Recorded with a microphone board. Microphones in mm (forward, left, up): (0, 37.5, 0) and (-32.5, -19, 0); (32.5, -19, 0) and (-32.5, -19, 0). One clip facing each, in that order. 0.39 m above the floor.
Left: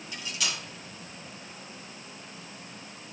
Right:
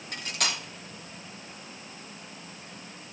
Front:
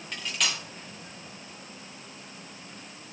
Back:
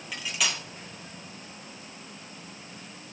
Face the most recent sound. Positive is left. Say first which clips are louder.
# right 3 dB, even
turn(degrees=-95)